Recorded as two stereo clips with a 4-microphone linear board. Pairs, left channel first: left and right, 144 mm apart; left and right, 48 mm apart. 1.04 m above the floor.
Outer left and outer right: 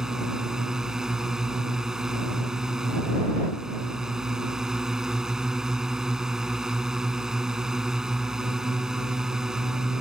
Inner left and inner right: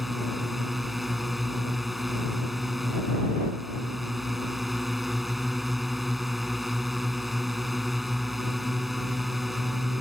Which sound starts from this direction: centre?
A drone, at 0.0 s.